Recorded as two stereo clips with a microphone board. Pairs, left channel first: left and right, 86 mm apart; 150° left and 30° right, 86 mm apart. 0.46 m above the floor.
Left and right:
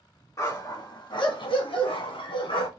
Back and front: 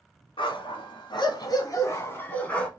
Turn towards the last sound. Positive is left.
turn(degrees=70)